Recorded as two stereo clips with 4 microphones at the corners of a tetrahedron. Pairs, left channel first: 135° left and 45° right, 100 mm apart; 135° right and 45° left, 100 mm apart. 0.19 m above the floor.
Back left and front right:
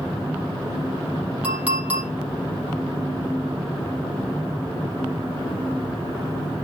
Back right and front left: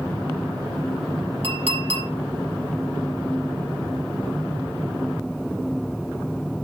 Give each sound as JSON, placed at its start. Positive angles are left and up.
{"t": 1.4, "sound": "a clink", "azimuth_deg": 30, "distance_m": 4.0}